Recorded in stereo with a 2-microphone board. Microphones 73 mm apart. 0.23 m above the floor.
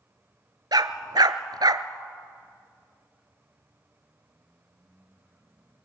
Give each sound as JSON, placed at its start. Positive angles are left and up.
{"t": 0.7, "sound": "a dog barking", "side_deg": -75, "distance_m": 1.0}